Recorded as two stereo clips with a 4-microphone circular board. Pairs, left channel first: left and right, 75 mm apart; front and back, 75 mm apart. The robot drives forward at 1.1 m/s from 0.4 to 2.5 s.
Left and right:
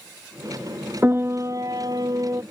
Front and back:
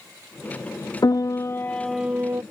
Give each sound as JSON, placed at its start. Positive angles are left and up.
{"t": 1.0, "sound": "a piano", "azimuth_deg": -30}